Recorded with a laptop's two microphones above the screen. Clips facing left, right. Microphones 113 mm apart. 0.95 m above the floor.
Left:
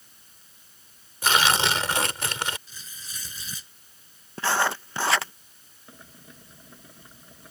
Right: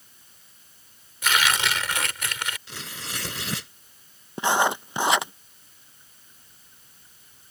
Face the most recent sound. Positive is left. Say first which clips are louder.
# left 11 dB
turn(degrees=85)